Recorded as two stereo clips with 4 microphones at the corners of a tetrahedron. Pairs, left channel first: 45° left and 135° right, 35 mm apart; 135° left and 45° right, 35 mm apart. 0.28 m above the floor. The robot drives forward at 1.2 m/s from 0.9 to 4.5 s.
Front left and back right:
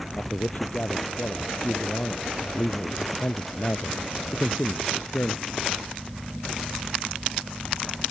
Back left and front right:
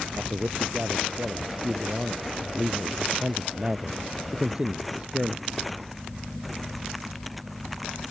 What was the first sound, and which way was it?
A man speaking, 10° left.